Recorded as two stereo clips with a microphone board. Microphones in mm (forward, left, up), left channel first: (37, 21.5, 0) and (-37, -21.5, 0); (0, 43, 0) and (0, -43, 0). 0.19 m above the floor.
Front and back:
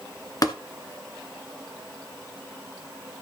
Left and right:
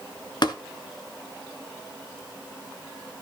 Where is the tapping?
65° left, 1.4 m.